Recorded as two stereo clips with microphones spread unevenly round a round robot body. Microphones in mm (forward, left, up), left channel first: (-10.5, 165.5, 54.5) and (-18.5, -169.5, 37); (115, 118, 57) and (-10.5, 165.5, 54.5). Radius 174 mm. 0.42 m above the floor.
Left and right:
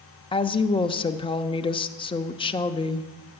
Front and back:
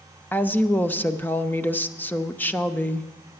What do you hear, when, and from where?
0.3 s a woman speaking: 35° left, 0.7 m